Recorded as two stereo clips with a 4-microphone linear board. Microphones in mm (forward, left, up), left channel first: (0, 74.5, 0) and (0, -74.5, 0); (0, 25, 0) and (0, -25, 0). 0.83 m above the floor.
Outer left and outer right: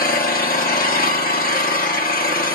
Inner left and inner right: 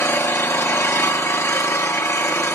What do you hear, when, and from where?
0.0 s an engine running: 75° left (ahead or behind), 1.1 m